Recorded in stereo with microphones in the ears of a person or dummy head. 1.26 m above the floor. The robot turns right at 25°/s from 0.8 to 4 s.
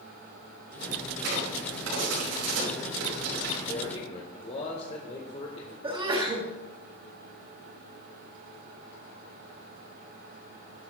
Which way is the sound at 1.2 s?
65° right (ahead or behind).